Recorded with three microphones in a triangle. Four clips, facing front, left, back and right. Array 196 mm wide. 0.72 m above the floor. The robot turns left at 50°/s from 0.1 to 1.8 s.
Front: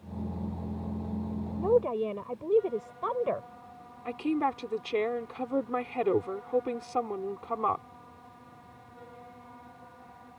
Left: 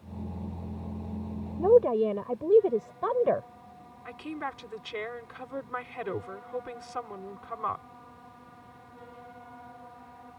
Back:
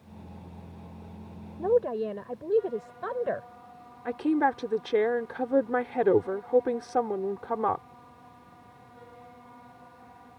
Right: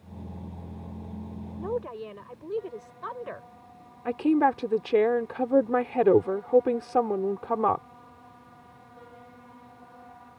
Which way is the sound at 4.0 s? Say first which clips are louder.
Right 15 dB, back 4 dB; 105° right.